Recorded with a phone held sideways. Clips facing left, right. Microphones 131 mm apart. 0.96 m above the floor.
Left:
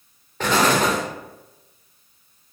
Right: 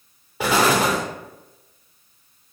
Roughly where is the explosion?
Centre.